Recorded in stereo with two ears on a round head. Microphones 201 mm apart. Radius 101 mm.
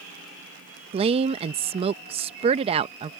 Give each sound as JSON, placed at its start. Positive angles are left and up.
{"t": 0.9, "sound": "a woman speaking", "side_deg": -25}